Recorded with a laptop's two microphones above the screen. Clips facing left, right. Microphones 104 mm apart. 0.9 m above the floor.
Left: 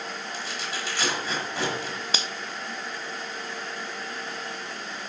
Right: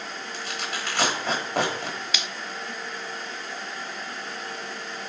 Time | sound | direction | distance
0.3 | tearing paper | 65° right (ahead or behind) | 3.5 m
2.1 | a finger snap | 35° left (ahead or behind) | 0.5 m